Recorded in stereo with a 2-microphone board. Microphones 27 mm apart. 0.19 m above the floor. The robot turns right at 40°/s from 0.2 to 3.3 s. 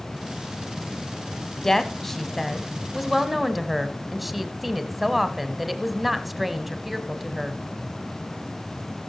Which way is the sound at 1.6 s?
15° left (ahead or behind).